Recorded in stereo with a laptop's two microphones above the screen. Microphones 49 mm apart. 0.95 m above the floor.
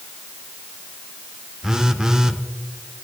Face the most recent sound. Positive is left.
turn(degrees=-15)  # may be behind; listen again after turning